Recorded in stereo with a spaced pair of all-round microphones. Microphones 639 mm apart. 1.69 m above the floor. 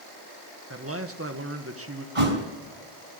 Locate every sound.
0.7 s a man speaking: 20° right (ahead or behind), 1.8 m
2.1 s a thud: 50° right (ahead or behind), 3.5 m